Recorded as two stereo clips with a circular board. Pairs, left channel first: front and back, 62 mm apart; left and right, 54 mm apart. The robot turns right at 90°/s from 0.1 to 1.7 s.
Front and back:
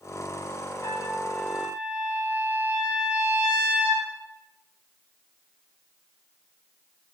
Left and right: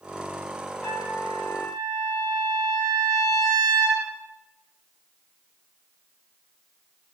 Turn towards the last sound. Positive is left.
turn(degrees=105)